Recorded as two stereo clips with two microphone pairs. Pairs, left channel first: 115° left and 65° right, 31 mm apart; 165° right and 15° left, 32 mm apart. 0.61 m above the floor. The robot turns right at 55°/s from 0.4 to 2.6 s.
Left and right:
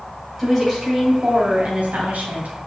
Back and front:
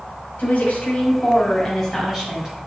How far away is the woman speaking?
About 1.8 m.